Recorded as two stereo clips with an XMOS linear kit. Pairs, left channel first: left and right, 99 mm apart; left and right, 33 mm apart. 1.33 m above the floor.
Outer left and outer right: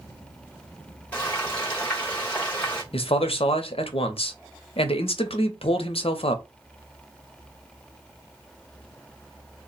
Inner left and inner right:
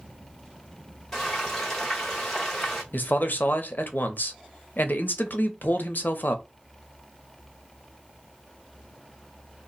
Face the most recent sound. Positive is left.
turn(degrees=75)  # may be behind; listen again after turning